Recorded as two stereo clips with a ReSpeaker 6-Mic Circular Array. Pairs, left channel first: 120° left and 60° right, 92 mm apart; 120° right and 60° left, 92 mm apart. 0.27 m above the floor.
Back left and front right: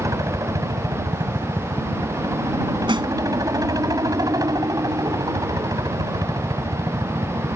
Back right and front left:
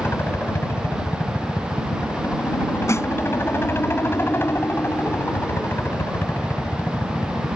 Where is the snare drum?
65° right.